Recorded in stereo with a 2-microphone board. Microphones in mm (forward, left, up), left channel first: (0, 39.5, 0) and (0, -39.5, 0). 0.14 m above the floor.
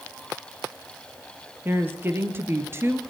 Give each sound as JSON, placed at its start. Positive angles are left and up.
{"t": 1.6, "sound": "a woman speaking", "side_deg": -25, "distance_m": 3.0}